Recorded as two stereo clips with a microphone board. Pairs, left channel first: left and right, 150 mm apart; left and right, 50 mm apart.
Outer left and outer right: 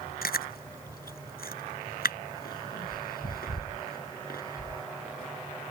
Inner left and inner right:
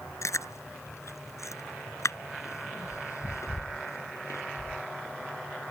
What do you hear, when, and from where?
0.2 s chewing: 80° left